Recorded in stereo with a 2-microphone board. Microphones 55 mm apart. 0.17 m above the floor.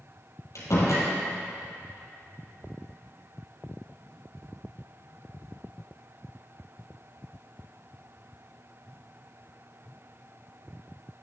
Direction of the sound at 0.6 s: 65° left (ahead or behind).